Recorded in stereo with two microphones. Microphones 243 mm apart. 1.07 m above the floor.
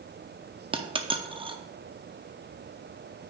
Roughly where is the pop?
I don't hear a pop.